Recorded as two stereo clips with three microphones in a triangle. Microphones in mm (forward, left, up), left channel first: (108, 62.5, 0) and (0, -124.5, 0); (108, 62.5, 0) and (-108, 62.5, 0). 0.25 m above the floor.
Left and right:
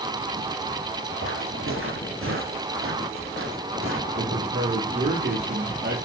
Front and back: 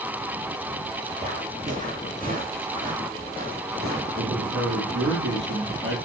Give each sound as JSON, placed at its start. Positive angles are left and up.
{"t": 1.2, "sound": "footsteps", "azimuth_deg": -125, "distance_m": 7.0}
{"t": 4.2, "sound": "a man speaking", "azimuth_deg": -160, "distance_m": 6.5}